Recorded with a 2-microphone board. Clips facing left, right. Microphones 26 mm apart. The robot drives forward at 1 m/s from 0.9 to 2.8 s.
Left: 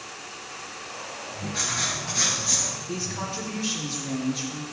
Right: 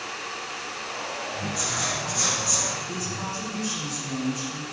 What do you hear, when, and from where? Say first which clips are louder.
1.5 s writing: left 2 dB; 60° left (ahead or behind), 3.5 m; by 2.7 s 50° left (ahead or behind), 4.5 m
2.9 s a woman speaking: even; 50° left (ahead or behind), 4 m